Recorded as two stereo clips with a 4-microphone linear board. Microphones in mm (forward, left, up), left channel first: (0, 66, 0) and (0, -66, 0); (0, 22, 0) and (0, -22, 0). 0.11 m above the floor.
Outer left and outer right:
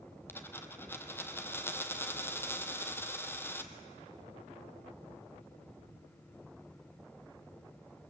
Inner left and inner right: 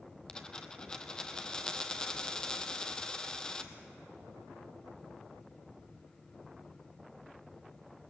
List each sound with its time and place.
0.3 s a dropped coin: 15° left (ahead or behind), 1.2 m